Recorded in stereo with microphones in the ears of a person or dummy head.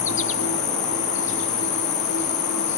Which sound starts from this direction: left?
An insect, at 0.0 s.